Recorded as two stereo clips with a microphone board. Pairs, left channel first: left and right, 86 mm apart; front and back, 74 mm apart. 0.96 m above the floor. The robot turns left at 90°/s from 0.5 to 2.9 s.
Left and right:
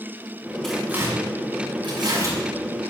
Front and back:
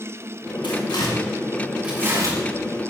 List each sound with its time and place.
0.6 s tearing paper: 10° left, 8.5 m; by 2.4 s 145° right, 8.5 m